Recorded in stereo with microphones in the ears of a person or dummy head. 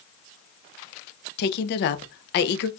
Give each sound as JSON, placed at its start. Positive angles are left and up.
{"t": 1.4, "sound": "a woman speaking", "side_deg": 60, "distance_m": 0.7}